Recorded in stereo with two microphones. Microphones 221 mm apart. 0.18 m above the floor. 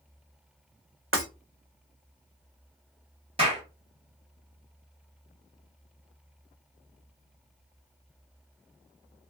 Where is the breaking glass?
80° right, 1.6 m.